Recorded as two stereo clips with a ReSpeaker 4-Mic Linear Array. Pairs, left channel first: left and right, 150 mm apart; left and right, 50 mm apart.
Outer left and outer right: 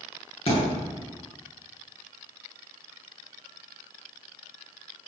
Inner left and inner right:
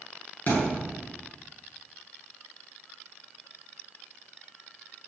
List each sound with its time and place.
0.5 s a thud: 40° left (ahead or behind), 9 m